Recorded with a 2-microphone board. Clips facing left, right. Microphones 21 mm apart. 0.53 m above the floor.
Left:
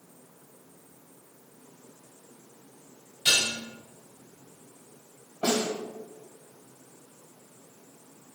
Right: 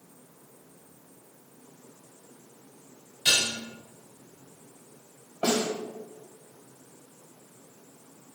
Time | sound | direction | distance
3.2 | dishes clattering | 50° right (ahead or behind) | 1.8 m
5.4 | a snare drum | 30° right (ahead or behind) | 1.7 m